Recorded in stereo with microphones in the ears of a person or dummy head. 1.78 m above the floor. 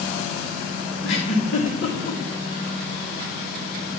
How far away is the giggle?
About 2.5 m.